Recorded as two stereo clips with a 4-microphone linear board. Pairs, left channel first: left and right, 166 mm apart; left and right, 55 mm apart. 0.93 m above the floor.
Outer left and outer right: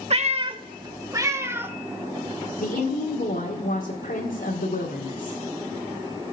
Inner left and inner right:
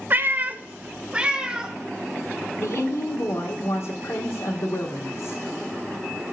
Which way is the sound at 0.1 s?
40° right (ahead or behind).